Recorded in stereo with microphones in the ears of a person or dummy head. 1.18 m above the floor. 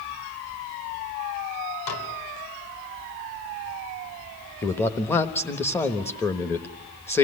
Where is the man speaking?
15° left (ahead or behind), 1.1 m.